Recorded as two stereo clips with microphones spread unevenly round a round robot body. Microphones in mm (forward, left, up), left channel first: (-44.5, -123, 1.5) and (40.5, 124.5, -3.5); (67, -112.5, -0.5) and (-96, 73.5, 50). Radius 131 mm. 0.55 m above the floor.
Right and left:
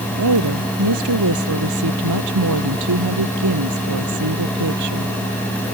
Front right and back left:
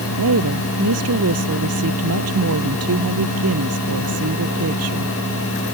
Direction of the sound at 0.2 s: 95° left.